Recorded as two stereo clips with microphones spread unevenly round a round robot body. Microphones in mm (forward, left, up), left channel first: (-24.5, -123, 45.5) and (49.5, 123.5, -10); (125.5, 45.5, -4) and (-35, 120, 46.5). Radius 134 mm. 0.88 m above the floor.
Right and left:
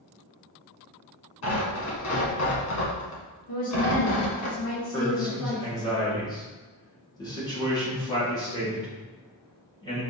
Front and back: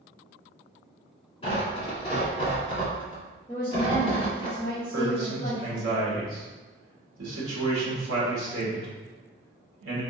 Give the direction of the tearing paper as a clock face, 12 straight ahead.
3 o'clock.